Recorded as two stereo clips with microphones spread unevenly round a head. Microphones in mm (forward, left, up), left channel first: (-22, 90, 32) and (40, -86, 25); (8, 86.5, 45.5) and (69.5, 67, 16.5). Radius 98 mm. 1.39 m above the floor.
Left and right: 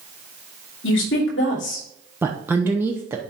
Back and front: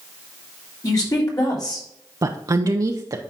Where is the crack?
No crack in this recording.